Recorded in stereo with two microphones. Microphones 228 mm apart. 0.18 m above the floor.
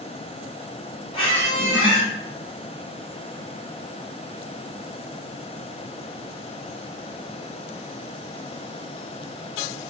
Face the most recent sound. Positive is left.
turn(degrees=25)  # may be behind; listen again after turning